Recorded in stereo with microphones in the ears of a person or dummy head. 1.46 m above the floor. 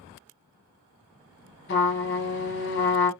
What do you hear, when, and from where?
1.7 s a trumpet: 55° left (ahead or behind), 1.0 m